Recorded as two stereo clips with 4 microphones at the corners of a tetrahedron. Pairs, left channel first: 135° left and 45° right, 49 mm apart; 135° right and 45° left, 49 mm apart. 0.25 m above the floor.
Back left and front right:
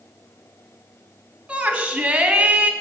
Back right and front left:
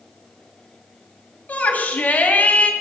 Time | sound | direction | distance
1.5 | a shout | 100° right | 2 m